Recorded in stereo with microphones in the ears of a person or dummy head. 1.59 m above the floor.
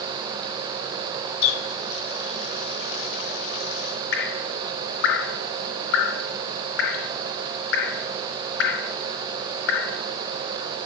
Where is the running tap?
65° left (ahead or behind), 2 m.